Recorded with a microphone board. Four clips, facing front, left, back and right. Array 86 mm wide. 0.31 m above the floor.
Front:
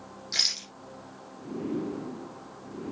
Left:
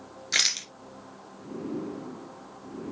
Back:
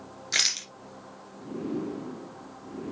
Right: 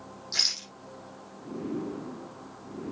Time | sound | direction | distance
0.3 | a rattle | 120° left | 1.9 m